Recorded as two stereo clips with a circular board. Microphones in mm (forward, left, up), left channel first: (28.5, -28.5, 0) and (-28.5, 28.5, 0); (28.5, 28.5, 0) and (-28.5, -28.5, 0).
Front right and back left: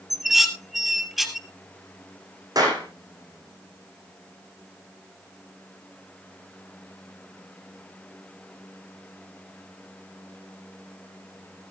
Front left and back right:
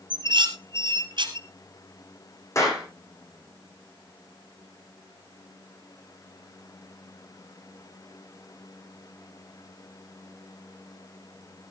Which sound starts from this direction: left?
A clap, at 2.5 s.